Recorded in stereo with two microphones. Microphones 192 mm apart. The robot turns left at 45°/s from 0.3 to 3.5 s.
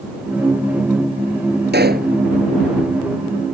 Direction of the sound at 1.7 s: 65° right (ahead or behind).